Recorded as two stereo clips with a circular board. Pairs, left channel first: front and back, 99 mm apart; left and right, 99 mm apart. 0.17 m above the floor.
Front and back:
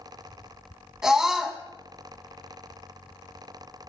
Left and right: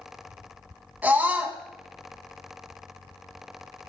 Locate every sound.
1.0 s a scream: 105° right, 1.6 m